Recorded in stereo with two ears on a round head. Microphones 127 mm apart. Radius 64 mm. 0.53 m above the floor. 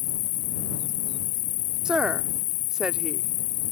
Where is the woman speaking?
5° right (ahead or behind).